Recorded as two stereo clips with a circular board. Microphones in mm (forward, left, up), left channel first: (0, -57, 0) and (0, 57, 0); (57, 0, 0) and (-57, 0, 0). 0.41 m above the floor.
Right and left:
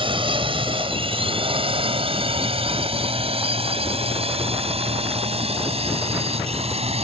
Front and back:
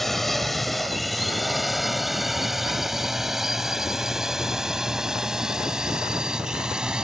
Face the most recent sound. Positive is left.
turn(degrees=100)